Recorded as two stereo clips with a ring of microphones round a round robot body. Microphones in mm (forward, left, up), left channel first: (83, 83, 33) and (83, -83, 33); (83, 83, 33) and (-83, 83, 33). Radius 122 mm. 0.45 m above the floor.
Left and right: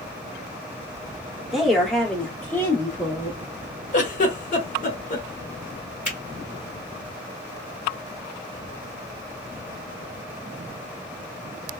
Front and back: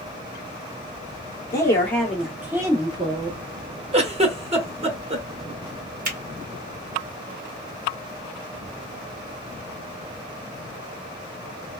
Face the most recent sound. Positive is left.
turn(degrees=-170)